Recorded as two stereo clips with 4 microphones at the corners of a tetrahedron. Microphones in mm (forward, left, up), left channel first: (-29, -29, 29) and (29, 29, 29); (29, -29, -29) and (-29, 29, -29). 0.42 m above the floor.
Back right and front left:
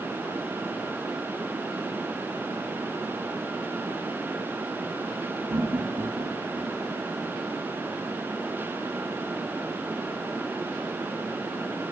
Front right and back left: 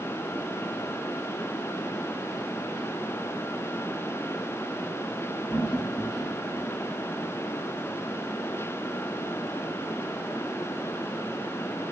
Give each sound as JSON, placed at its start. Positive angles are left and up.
{"t": 5.5, "sound": "laughter", "azimuth_deg": 25, "distance_m": 6.5}